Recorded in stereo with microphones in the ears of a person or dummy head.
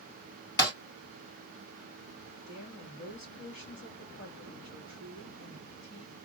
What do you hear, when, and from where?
0.6 s breaking glass: 20° left (ahead or behind), 2.5 m
2.5 s a woman speaking: 45° left (ahead or behind), 2 m